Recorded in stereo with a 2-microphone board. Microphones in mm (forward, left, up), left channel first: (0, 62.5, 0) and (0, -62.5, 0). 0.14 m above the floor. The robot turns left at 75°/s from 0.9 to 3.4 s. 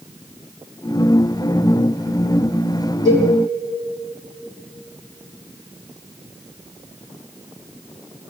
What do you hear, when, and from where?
3.0 s a cowbell: 75° right (ahead or behind), 6.5 m